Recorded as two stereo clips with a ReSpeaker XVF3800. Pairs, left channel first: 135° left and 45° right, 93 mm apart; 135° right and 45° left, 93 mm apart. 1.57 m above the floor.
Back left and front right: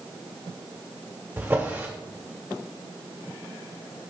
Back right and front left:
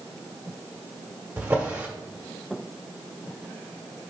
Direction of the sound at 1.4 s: 5° right.